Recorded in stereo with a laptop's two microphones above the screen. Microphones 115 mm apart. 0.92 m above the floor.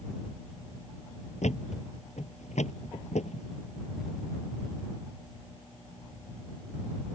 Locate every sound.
1.4 s a thud: 80° left